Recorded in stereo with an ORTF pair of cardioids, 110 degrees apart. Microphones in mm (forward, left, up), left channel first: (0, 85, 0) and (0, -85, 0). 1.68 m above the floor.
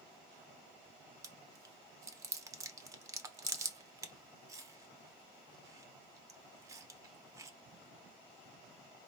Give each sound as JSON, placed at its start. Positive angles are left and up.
{"t": 1.2, "sound": "chewing", "azimuth_deg": -20, "distance_m": 0.9}